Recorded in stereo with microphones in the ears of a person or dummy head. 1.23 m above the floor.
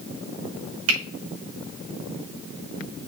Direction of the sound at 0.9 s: 70° right (ahead or behind).